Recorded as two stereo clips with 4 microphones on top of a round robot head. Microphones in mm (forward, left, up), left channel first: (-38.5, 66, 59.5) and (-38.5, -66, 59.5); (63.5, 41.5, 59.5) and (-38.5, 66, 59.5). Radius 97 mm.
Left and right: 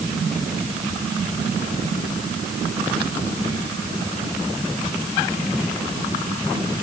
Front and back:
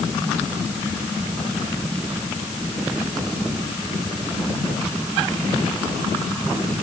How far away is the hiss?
I don't hear a hiss.